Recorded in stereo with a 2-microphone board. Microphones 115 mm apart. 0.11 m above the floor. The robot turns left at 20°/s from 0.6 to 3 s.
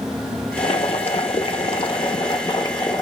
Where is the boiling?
85° left, 0.6 m; by 3.0 s 40° left, 0.6 m.